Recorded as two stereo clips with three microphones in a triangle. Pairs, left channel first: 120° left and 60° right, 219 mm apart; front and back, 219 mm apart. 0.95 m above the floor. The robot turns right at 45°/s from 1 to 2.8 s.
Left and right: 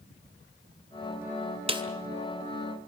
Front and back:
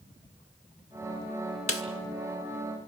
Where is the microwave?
I don't hear a microwave.